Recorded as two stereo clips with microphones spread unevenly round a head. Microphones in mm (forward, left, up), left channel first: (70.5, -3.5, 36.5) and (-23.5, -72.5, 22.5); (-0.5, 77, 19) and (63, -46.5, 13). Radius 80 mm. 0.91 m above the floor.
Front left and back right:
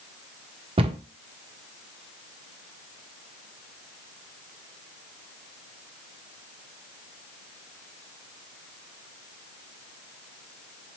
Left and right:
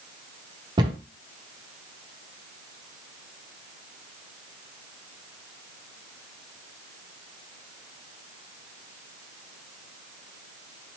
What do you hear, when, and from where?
0.8 s a cupboard door: 120° right, 0.6 m